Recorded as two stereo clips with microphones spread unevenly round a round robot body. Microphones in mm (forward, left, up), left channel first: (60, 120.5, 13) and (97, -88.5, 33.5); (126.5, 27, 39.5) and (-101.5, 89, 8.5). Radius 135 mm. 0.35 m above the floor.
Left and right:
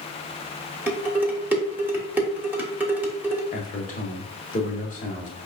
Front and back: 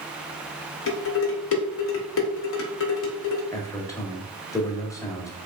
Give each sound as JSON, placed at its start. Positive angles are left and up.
{"t": 0.9, "sound": "dishes clattering", "azimuth_deg": 5, "distance_m": 1.1}
{"t": 3.5, "sound": "a man speaking", "azimuth_deg": 65, "distance_m": 1.2}